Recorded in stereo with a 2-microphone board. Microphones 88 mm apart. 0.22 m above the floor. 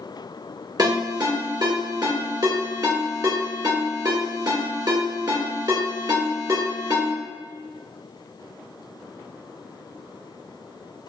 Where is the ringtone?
45° right (ahead or behind), 1.9 m.